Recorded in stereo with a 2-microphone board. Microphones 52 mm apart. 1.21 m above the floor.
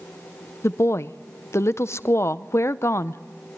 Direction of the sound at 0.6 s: 60° left (ahead or behind).